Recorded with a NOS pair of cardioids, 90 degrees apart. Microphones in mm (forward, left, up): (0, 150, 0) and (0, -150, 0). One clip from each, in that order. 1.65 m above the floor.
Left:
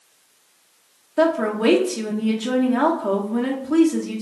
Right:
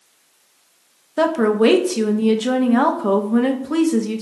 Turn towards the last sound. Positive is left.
turn(degrees=-25)